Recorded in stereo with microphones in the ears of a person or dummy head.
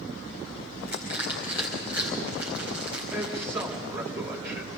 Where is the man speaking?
10° right (ahead or behind), 2.5 m.